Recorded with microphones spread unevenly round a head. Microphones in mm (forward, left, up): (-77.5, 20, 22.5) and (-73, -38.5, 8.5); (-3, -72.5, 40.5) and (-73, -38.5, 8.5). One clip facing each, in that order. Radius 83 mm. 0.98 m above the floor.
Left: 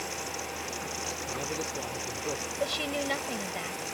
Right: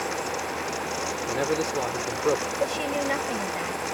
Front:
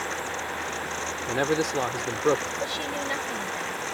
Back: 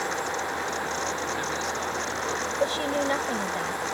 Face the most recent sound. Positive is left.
turn(degrees=-155)